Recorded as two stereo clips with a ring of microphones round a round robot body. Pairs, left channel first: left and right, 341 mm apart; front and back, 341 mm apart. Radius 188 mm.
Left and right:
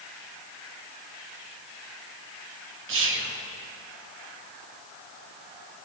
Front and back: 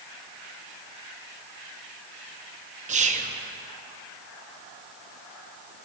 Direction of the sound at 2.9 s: 120° right.